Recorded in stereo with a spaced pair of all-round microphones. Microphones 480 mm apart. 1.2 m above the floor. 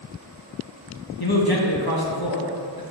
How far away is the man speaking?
About 1.4 m.